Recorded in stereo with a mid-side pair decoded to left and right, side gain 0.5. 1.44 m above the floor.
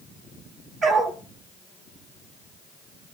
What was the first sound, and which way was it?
A dog barking, 55° right.